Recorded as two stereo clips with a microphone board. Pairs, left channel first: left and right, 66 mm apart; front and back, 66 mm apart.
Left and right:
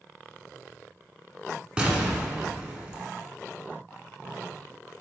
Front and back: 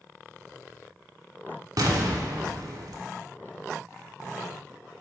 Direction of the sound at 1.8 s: 165° right.